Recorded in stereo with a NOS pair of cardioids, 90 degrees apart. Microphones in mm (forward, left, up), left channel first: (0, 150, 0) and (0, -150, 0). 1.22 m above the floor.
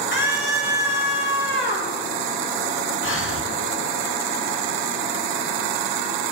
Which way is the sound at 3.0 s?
45° left.